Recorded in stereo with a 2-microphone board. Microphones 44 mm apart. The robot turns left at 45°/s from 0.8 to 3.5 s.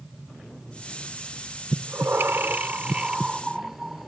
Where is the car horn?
I don't hear a car horn.